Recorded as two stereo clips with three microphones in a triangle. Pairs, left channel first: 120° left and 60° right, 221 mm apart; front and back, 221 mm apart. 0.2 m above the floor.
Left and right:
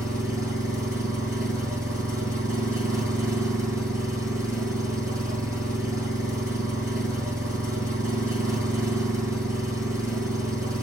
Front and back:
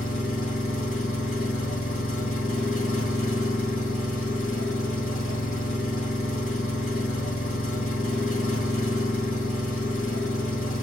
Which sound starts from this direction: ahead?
An engine running, at 0.0 s.